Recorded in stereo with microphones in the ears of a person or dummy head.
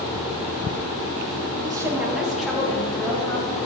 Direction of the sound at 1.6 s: 20° right (ahead or behind).